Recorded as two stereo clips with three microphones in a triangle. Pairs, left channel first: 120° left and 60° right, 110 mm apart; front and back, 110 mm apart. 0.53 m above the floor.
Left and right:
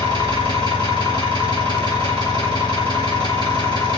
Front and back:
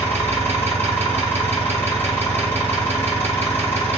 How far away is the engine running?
About 1.9 m.